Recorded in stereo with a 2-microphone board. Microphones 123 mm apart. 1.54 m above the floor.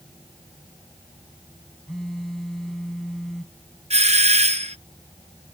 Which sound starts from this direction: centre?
A phone buzzing, at 1.9 s.